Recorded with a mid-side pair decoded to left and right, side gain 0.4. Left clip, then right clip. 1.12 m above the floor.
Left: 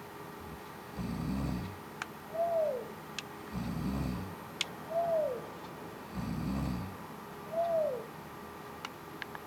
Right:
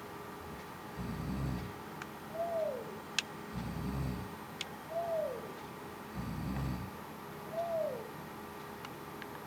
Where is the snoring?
45° left, 1.5 m.